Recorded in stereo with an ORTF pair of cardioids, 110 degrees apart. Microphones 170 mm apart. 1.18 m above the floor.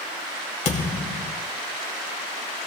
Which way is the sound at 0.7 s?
45° left.